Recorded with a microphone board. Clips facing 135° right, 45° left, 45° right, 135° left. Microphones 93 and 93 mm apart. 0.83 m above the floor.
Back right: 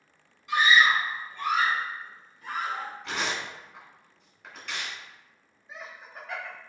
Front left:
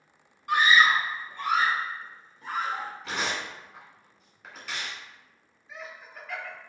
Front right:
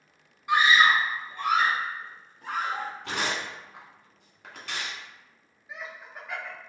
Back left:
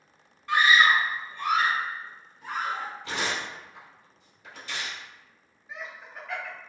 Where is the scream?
25° left, 0.7 m; by 2.9 s 25° right, 1.7 m.